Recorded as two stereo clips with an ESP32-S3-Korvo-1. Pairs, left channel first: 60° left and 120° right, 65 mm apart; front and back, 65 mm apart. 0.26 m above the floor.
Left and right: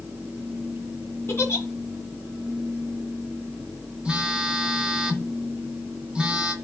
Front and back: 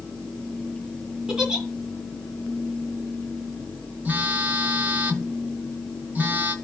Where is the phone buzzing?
Straight behind, 1.2 m.